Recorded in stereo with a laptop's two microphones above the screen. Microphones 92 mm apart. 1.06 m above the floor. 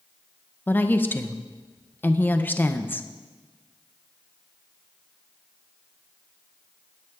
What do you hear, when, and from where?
0.7 s a woman speaking: 20° left (ahead or behind), 0.5 m